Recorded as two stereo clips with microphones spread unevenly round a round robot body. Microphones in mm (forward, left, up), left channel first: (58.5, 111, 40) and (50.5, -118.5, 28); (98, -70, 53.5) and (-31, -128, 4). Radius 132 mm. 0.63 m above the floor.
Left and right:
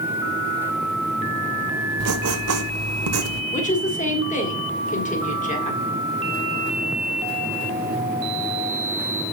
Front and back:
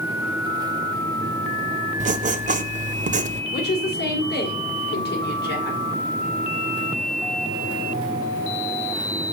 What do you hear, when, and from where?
2.0 s writing: 115° right, 0.5 m
3.5 s a woman speaking: 30° left, 2 m